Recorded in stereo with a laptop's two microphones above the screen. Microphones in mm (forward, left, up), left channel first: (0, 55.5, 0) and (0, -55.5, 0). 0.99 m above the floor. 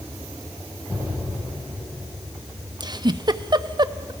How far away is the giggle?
About 0.5 m.